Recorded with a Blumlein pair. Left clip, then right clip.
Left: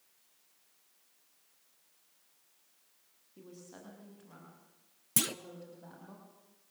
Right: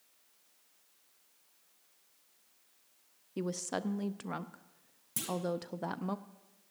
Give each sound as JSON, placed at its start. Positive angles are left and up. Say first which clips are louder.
{"t": 3.4, "sound": "a woman speaking", "louder": "right 16 dB", "azimuth_deg": -50, "distance_m": 0.6}
{"t": 5.2, "sound": "a clunk", "louder": "left 4 dB", "azimuth_deg": 30, "distance_m": 0.5}